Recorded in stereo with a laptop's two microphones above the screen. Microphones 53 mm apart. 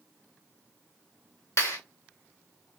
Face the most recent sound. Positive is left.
turn(degrees=60)  # may be behind; listen again after turning